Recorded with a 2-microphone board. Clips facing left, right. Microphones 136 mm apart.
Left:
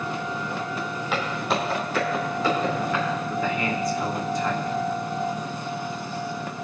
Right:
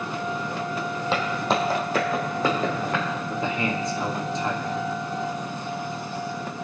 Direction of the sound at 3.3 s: 25° right (ahead or behind).